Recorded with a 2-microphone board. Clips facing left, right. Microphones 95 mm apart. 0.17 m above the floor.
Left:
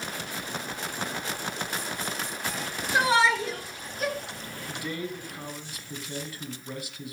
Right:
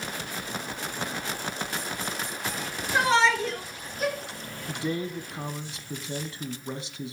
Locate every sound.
2.9 s a shout: 10° left (ahead or behind), 3.5 m; by 4.2 s 5° right (ahead or behind), 2.5 m
4.7 s a man speaking: 25° right (ahead or behind), 1.3 m